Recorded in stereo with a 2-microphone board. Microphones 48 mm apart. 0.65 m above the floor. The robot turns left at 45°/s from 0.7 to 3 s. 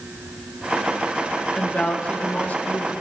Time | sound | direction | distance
1.6 | a woman speaking | 150° left | 1.1 m